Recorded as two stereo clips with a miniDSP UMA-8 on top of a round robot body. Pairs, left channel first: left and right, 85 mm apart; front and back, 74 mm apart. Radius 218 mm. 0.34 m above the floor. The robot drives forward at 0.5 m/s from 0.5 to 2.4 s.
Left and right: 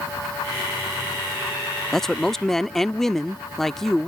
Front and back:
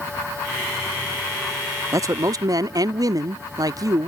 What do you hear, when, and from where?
1.9 s a man speaking: 175° left